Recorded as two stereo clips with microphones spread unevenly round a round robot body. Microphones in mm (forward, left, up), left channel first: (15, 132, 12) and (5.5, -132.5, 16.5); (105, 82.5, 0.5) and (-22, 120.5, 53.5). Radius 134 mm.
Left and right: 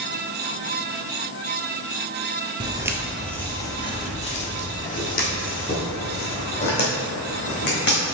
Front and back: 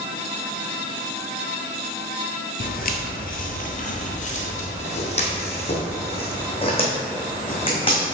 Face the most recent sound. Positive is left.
turn(degrees=40)